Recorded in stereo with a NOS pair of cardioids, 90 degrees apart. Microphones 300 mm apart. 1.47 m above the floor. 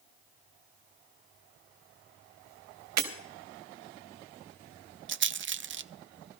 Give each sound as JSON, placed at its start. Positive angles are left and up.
{"t": 3.0, "sound": "breaking glass", "azimuth_deg": -65, "distance_m": 3.5}
{"t": 5.1, "sound": "a rattle", "azimuth_deg": -40, "distance_m": 0.5}